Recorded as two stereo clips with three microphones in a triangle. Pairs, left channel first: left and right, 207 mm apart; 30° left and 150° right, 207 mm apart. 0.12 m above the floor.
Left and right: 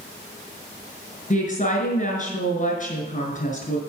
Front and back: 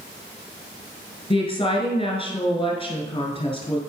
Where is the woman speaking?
75° left, 1.6 m.